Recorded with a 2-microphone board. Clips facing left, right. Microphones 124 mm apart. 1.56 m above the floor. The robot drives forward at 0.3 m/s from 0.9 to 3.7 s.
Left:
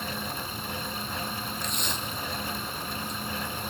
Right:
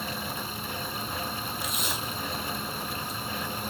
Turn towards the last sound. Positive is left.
turn(degrees=-5)  # may be behind; listen again after turning